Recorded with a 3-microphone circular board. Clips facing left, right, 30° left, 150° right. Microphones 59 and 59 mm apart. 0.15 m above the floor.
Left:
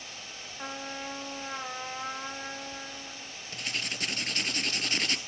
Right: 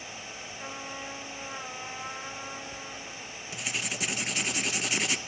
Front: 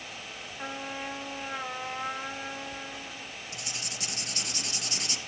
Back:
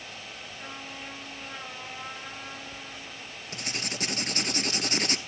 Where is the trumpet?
70° left, 3.5 m.